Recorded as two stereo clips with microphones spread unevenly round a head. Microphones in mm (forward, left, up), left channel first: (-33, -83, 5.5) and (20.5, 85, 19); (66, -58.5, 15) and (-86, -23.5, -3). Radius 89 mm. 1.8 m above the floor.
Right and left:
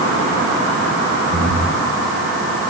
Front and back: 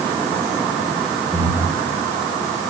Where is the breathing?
115° right, 3.5 m.